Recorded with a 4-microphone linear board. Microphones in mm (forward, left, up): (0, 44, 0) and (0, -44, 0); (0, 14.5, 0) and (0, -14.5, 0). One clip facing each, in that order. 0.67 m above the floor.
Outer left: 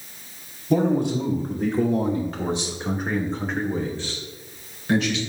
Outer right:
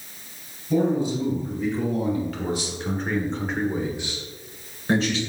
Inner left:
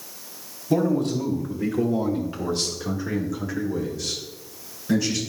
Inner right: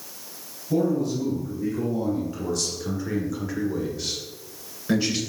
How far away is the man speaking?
About 2.5 m.